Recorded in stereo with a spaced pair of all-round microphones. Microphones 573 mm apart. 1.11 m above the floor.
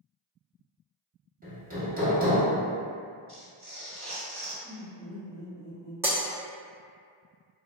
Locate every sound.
1.4 s hammering: 15° right (ahead or behind), 0.9 m
3.3 s tearing paper: 15° left (ahead or behind), 1.4 m
4.6 s laughter: 15° right (ahead or behind), 1.3 m
6.0 s breaking glass: 5° right (ahead or behind), 0.6 m